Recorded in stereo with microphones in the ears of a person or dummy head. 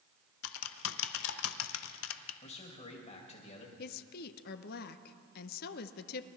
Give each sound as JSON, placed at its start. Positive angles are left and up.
{"t": 0.4, "sound": "typing on a keyboard", "side_deg": 80, "distance_m": 0.8}
{"t": 2.4, "sound": "a man speaking", "side_deg": 35, "distance_m": 2.0}
{"t": 3.8, "sound": "a woman speaking", "side_deg": 50, "distance_m": 0.7}